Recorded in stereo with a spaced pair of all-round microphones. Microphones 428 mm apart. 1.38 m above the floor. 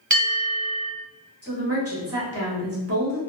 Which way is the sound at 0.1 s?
45° right (ahead or behind).